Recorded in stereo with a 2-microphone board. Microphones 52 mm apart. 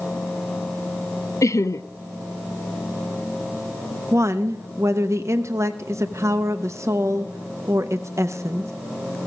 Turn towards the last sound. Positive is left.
turn(degrees=-65)  # may be behind; listen again after turning